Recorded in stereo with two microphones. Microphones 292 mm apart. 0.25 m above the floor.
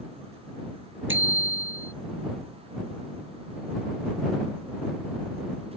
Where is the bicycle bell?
45° right (ahead or behind).